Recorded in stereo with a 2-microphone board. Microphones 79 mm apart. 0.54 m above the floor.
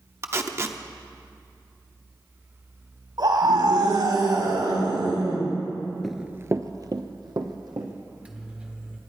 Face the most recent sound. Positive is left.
turn(degrees=-15)  # may be behind; listen again after turning